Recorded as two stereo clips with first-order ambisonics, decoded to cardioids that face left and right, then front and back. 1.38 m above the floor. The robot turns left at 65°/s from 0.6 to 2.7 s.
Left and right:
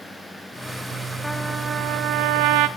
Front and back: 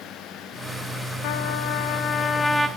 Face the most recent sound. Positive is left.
turn(degrees=-95)